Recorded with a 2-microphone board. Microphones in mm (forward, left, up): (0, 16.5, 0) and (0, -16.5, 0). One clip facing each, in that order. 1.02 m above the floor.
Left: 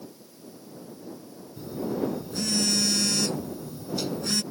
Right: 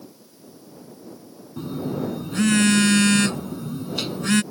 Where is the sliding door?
I don't hear a sliding door.